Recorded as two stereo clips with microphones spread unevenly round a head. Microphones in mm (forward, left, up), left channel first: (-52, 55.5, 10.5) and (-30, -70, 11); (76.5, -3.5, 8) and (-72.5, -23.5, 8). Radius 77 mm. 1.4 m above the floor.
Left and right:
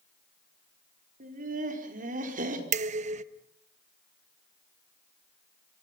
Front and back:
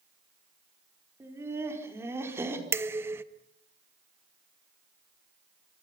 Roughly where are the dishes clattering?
Right.